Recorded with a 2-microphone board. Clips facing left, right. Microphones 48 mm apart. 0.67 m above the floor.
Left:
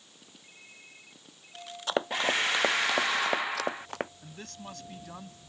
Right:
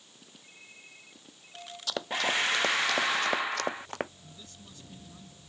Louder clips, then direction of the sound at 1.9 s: Left 2 dB; 30° left (ahead or behind).